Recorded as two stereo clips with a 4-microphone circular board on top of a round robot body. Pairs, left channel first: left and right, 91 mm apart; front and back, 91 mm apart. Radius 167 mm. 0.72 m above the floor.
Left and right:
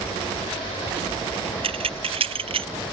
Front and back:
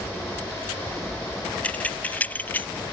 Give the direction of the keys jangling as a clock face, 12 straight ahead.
3 o'clock.